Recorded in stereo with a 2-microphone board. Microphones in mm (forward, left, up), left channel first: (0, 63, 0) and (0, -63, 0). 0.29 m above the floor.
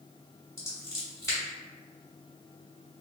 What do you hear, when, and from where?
0.6 s scissors: 25° left (ahead or behind), 1.7 m